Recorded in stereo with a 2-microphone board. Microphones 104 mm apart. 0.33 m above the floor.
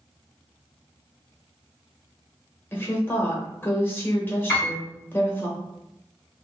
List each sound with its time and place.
2.7 s a woman speaking: 25° left (ahead or behind), 1.0 m
4.5 s a piano: 30° left (ahead or behind), 1.7 m